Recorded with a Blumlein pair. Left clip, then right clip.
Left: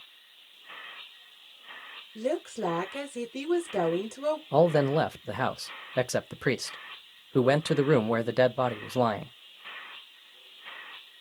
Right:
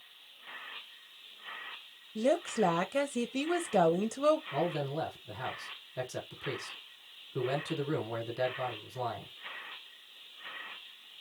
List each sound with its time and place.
2.1 s a woman speaking: 10° right, 0.7 m
4.5 s a man speaking: 55° left, 0.5 m